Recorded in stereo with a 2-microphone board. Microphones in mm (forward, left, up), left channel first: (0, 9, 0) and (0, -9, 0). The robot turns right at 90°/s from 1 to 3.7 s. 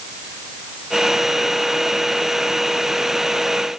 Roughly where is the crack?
No crack in this recording.